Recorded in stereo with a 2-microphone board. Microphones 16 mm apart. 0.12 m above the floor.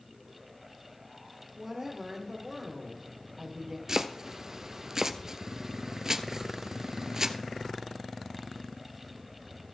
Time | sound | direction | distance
1.6 | a woman speaking | 40° right (ahead or behind) | 2.5 m
3.9 | chopping | 35° right (ahead or behind) | 0.6 m